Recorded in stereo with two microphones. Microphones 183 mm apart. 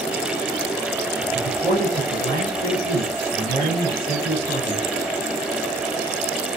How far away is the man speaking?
About 3 m.